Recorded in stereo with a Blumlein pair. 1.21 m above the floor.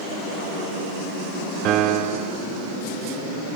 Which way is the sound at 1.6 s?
35° right.